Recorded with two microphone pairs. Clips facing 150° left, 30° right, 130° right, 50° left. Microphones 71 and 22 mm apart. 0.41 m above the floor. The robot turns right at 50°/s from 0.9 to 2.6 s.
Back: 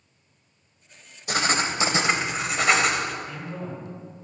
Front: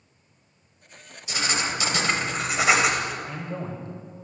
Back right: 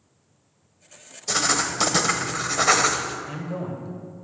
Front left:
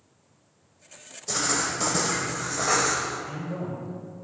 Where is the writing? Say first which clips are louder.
Back 3 dB, back right 4 dB; straight behind, 0.8 m; by 3.1 s 115° right, 0.8 m.